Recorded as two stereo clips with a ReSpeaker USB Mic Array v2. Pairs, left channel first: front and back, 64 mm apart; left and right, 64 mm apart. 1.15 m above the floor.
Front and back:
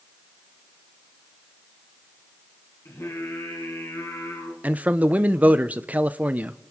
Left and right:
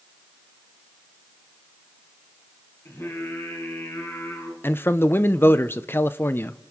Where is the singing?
45° left, 4 m.